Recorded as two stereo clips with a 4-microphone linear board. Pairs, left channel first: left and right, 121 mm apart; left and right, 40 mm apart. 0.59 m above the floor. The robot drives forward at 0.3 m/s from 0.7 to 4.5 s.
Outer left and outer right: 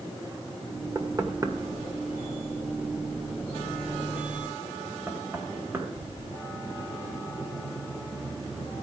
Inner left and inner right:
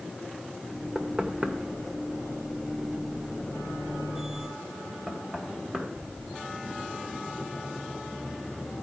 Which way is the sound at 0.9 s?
30° right (ahead or behind).